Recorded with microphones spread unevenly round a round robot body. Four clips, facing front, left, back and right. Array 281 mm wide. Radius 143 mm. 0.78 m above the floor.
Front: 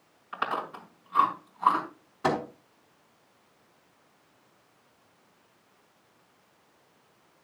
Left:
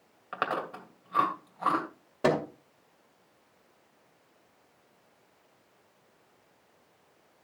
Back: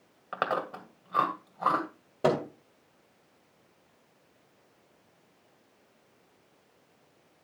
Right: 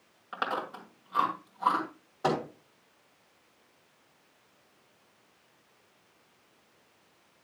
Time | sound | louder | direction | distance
0.3 | chewing | left 1 dB, back 1 dB | 165° left | 2 m
2.2 | a microwave | left 3 dB, back 1 dB | 145° left | 2.5 m